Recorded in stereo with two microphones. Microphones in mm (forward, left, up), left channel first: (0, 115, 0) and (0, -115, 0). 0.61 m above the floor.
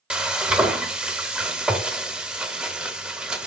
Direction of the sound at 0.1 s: 5° right (ahead or behind).